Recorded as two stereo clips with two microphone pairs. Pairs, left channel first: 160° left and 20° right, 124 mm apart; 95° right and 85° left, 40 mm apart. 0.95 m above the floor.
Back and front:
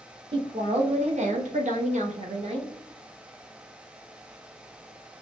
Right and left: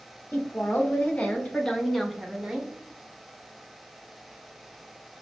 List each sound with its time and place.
0.3 s a woman speaking: 60° right, 1.2 m; by 2.7 s 15° left, 0.8 m